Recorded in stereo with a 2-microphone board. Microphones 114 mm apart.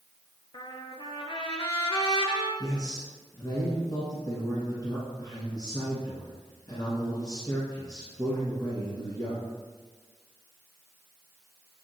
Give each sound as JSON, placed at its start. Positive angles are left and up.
{"t": 0.5, "sound": "a trumpet", "side_deg": 40, "distance_m": 0.8}
{"t": 2.6, "sound": "a man speaking", "side_deg": 35, "distance_m": 1.7}